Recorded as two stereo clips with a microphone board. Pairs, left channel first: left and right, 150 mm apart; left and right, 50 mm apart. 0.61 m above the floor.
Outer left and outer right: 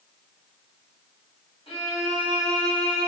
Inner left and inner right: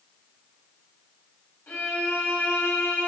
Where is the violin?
40° left (ahead or behind), 2.5 m.